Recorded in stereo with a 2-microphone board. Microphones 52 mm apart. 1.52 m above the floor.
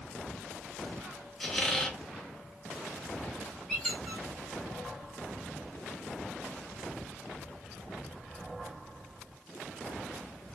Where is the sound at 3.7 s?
5° left (ahead or behind), 2.5 m.